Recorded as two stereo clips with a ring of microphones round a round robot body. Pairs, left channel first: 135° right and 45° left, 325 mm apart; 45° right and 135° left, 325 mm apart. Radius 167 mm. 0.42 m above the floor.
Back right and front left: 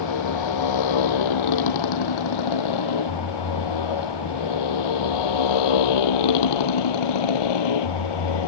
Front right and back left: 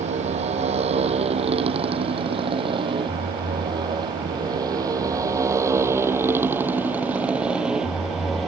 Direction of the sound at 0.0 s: 155° right.